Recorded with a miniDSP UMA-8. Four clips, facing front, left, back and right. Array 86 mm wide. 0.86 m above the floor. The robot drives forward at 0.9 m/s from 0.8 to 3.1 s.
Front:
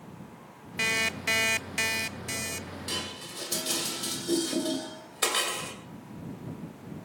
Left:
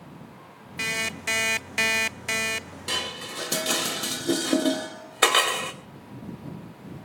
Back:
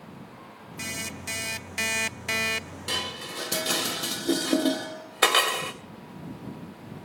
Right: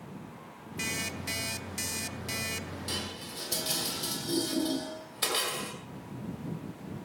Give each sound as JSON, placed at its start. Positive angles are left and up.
{"t": 0.8, "sound": "an alarm clock", "azimuth_deg": 30, "distance_m": 1.1}
{"t": 2.9, "sound": "dishes clattering", "azimuth_deg": 120, "distance_m": 2.5}